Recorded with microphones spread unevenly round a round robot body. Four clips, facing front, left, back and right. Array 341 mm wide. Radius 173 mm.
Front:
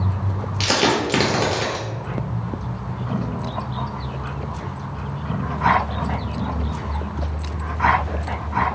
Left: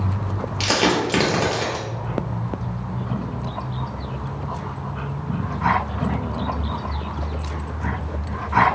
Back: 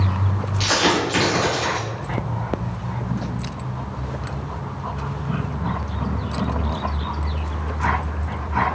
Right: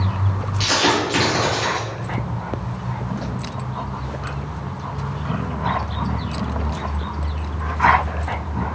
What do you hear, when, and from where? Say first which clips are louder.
0.6 s a dropped coin: right 1 dB, even; 20° left, 0.9 m